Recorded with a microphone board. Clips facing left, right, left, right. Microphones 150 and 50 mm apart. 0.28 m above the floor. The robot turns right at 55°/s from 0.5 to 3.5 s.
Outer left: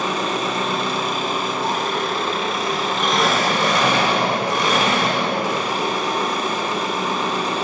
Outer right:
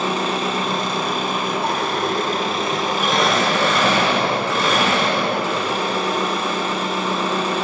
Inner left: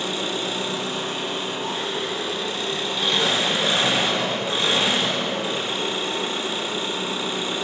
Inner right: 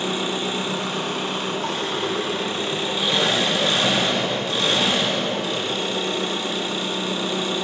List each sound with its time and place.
0.0 s an engine running: 150° right, 1.3 m; by 7.7 s 15° left, 1.3 m